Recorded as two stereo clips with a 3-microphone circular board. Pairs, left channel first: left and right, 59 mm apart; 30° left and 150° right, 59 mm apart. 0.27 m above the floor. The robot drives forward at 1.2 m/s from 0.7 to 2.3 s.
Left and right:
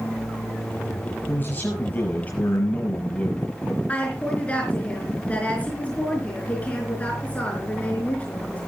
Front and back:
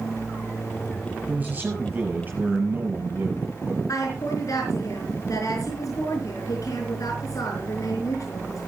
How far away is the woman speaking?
About 4.5 m.